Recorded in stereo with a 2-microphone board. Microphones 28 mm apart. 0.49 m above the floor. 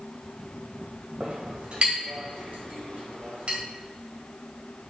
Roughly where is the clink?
Right.